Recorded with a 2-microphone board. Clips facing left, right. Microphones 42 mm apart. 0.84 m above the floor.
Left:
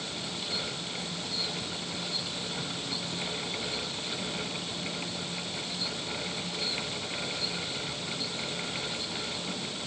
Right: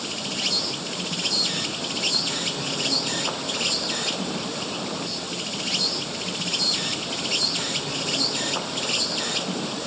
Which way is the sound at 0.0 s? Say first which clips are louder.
Right 8 dB; 85° right.